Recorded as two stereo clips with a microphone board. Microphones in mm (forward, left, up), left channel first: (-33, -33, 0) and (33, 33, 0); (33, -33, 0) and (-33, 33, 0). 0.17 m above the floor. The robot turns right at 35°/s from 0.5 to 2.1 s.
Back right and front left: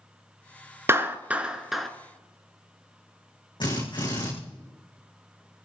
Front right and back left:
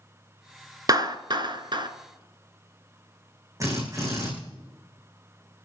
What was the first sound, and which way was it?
A clap, 100° left.